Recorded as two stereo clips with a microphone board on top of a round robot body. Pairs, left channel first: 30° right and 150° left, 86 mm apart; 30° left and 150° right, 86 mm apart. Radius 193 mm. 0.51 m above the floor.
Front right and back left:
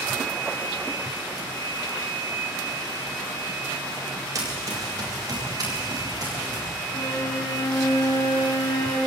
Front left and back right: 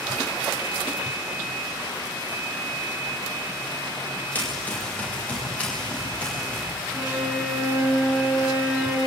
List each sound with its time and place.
4.3 s running footsteps: 100° left, 8 m; by 6.6 s 105° left, 10.5 m
6.9 s a violin: 80° right, 6 m